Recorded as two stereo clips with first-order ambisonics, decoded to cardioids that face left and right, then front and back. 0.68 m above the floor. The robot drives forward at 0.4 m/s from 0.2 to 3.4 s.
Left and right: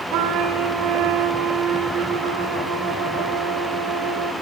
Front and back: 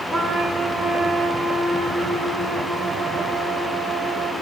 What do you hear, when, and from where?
0.1 s a trumpet: 80° right, 2.5 m; by 4.3 s 110° right, 2.5 m